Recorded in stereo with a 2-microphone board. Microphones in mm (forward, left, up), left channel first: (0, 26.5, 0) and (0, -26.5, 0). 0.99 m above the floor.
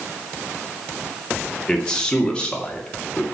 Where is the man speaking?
10° left (ahead or behind), 2 m; by 3.2 s 25° left (ahead or behind), 2.5 m.